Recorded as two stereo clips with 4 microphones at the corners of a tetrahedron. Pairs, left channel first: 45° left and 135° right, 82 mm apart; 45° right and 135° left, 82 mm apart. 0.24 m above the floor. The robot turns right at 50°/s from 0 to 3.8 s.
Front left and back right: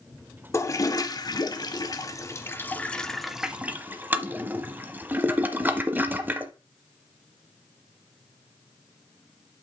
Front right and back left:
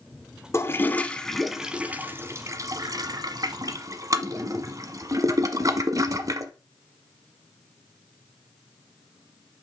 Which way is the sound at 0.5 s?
Straight ahead.